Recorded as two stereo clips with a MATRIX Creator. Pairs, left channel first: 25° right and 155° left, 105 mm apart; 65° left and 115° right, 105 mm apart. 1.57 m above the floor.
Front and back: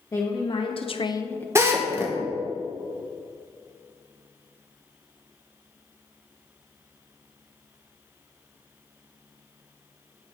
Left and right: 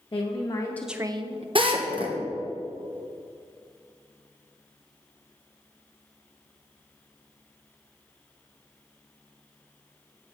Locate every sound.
0.1 s a woman speaking: 35° left, 1.2 m; by 1.4 s 95° right, 0.9 m
1.6 s a drill: 140° right, 1.0 m